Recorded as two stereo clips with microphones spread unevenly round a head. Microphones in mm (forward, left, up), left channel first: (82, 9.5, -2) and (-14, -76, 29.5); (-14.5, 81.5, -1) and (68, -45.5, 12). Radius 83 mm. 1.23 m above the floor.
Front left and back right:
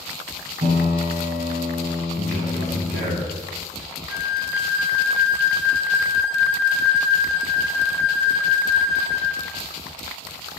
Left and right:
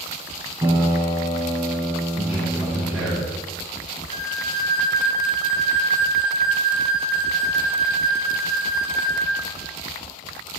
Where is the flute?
60° left, 1.9 m.